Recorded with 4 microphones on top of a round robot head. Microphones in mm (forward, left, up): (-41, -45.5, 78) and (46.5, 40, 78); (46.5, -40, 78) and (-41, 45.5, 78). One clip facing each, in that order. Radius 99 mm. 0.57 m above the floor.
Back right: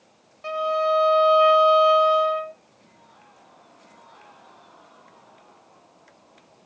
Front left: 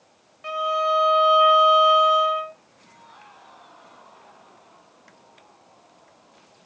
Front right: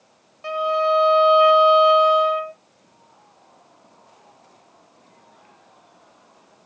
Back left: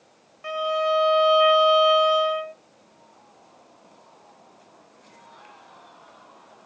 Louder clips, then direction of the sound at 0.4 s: Back right 1 dB, front right 3 dB; 95° right.